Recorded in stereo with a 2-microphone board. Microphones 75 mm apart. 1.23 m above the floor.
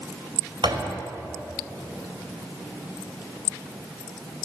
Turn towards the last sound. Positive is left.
turn(degrees=-85)